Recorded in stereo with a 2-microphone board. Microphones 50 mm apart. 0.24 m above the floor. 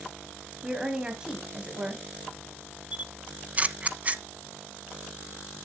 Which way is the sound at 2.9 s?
30° right (ahead or behind).